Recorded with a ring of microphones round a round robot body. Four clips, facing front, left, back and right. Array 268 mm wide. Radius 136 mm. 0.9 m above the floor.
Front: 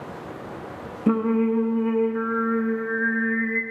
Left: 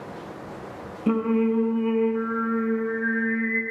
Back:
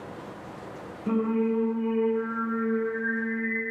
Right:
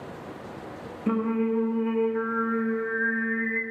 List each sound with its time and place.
1.1 s singing: 15° left, 0.6 m